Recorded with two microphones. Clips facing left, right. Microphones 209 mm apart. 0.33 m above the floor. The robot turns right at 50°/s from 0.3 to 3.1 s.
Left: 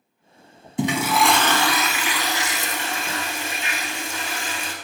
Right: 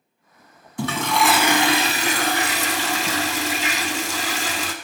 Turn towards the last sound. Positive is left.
turn(degrees=-85)